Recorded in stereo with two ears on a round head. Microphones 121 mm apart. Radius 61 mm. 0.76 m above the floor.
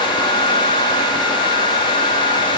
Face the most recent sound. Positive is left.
No sound to turn to.